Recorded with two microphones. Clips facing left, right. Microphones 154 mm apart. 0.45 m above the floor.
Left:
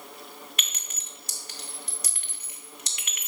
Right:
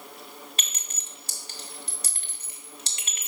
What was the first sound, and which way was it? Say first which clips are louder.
A clink: even; 30° right (ahead or behind).